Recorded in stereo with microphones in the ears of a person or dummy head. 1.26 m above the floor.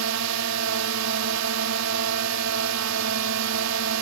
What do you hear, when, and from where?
0.0 s a drone: 60° right (ahead or behind)